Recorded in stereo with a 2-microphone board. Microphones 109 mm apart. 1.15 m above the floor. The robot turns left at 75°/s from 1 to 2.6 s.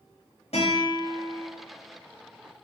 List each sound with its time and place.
0.5 s a guitar: 80° left, 6 m; by 1.5 s 45° left, 6 m